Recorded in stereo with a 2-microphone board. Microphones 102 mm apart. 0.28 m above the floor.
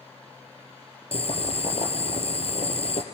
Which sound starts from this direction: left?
Boiling, at 1.1 s.